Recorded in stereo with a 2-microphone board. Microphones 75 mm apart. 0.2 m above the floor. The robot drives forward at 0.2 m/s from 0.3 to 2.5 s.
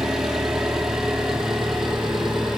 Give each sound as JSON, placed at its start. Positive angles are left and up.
{"t": 0.0, "sound": "an engine running", "side_deg": -5, "distance_m": 2.0}